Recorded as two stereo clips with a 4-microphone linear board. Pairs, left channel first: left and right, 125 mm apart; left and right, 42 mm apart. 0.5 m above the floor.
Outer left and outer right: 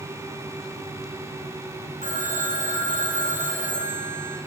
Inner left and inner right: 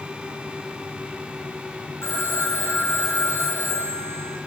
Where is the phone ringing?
80° left, 3.5 m.